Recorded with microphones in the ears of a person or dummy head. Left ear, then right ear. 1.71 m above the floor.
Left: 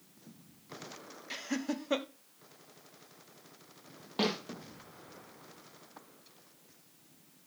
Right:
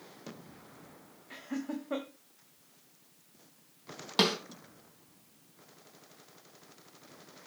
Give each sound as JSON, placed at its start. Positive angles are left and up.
{"t": 1.3, "sound": "laughter", "side_deg": 85, "distance_m": 1.1}
{"t": 4.2, "sound": "a snare drum", "side_deg": -50, "distance_m": 3.0}